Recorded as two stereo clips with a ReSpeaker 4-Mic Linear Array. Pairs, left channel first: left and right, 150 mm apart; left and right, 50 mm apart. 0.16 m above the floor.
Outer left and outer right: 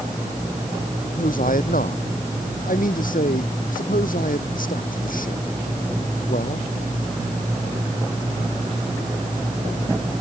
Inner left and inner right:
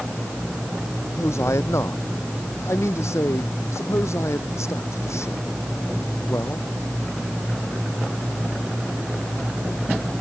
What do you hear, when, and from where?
1.0 s a man speaking: 70° left (ahead or behind)